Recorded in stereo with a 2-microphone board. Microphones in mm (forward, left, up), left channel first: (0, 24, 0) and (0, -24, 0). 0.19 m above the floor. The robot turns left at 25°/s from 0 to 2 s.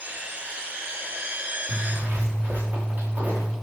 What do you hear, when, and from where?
1.7 s a zipper: 30° right (ahead or behind), 5 m; by 3.5 s 35° right (ahead or behind), 5 m